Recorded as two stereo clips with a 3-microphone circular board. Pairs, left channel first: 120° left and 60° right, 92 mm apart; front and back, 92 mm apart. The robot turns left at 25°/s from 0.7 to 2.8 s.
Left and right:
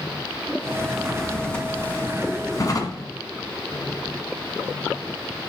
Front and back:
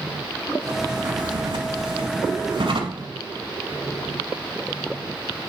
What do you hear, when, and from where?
0.9 s a drawer: 150° right, 1.1 m; by 3.1 s 165° left, 1.1 m